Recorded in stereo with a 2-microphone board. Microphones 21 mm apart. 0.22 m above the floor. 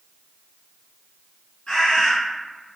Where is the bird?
45° left (ahead or behind), 2.0 m.